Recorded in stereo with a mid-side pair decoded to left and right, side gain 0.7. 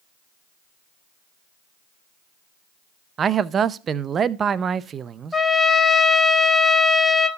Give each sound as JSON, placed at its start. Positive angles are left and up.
{"t": 3.2, "sound": "a man speaking", "azimuth_deg": -35, "distance_m": 0.6}
{"t": 5.3, "sound": "a trumpet", "azimuth_deg": 15, "distance_m": 1.2}